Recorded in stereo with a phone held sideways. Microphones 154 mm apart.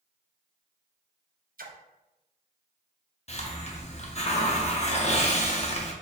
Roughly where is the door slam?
No door slam in this recording.